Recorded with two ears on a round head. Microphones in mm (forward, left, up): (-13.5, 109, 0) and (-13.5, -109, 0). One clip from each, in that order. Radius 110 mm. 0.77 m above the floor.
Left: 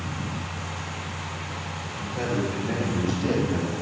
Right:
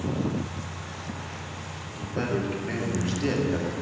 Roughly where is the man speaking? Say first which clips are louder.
Even; right.